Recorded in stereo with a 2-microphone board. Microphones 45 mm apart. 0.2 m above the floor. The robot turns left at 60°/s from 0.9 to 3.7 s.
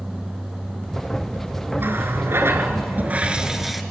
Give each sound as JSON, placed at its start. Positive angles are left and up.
{"t": 1.8, "sound": "a running tap", "azimuth_deg": -60, "distance_m": 1.7}